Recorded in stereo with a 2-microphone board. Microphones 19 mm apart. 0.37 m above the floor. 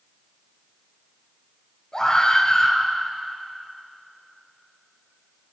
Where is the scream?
40° left (ahead or behind), 7 m.